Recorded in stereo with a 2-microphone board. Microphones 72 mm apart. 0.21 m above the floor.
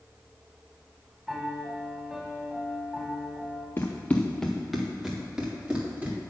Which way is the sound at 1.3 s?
5° right (ahead or behind).